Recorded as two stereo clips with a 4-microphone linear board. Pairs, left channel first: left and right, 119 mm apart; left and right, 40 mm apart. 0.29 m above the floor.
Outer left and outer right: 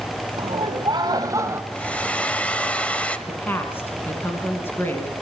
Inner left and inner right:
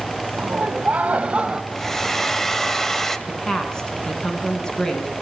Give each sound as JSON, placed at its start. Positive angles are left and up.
{"t": 0.4, "sound": "laughter", "side_deg": -45, "distance_m": 2.0}
{"t": 1.7, "sound": "a hair dryer", "side_deg": 10, "distance_m": 1.1}
{"t": 3.3, "sound": "a woman speaking", "side_deg": 15, "distance_m": 3.5}